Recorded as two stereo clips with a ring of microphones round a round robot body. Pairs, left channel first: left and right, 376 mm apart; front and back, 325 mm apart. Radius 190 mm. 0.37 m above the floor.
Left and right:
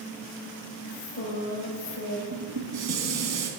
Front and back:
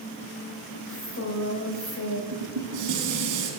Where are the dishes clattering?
135° right, 2.5 m.